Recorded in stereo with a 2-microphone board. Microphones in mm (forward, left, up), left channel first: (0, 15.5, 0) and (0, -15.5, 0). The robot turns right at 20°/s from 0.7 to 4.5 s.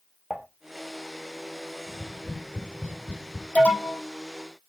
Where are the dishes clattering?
10° left (ahead or behind), 1.8 m.